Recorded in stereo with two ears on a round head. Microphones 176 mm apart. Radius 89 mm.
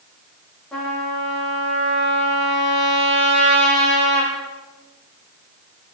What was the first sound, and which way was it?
A trumpet, 5° left (ahead or behind).